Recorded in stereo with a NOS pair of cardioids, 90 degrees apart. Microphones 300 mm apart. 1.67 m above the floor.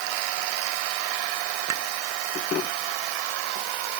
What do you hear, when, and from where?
1.7 s a clink: 65° right